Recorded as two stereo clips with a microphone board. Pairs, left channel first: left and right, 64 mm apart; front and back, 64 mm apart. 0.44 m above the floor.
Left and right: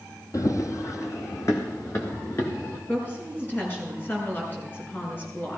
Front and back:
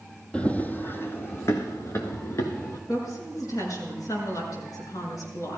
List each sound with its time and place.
0.3 s running footsteps: 70° left, 0.8 m; by 2.8 s 40° left, 3 m
2.9 s a woman speaking: 30° left, 6 m